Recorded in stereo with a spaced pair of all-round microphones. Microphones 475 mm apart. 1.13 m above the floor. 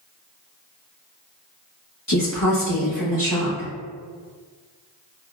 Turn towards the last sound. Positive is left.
turn(degrees=45)  # may be behind; listen again after turning